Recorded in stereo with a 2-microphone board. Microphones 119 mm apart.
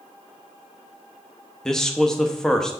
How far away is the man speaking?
About 0.8 m.